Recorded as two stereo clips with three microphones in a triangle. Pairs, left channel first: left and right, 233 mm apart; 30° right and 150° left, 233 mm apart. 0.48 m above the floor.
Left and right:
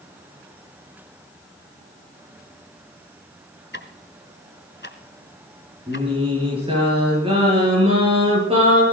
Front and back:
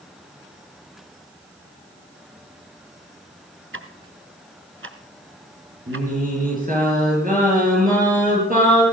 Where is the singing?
155° right, 7.5 m.